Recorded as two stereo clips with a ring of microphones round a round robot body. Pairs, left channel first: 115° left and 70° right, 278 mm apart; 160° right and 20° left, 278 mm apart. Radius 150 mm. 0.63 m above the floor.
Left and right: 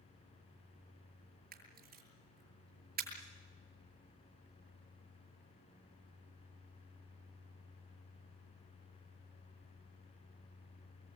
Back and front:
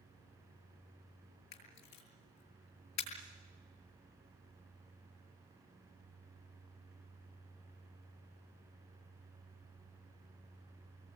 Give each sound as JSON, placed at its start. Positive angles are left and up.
{"t": 1.5, "sound": "a camera shutter", "azimuth_deg": -125, "distance_m": 7.0}